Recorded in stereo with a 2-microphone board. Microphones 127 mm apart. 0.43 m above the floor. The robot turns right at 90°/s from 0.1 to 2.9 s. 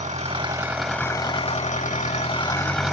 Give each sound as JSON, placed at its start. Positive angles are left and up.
{"t": 0.0, "sound": "an engine running", "azimuth_deg": -65, "distance_m": 0.8}